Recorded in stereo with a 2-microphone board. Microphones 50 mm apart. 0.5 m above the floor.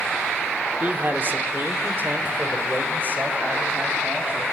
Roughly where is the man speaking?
Right.